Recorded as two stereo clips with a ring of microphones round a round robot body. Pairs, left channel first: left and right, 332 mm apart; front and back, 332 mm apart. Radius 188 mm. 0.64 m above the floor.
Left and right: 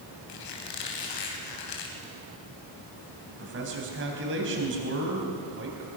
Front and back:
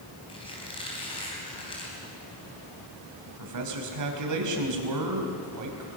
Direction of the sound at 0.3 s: 75° left.